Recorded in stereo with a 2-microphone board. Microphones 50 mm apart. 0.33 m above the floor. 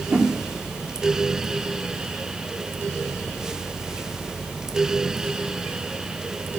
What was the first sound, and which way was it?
A whoosh, 60° right (ahead or behind).